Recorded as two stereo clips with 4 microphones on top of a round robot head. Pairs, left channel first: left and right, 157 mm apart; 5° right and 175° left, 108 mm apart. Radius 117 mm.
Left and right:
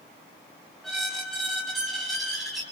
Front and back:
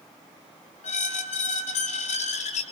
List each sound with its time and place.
0.8 s a squeak: straight ahead, 1.7 m